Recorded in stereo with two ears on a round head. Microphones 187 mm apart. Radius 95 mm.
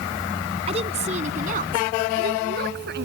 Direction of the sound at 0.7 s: 30° right (ahead or behind).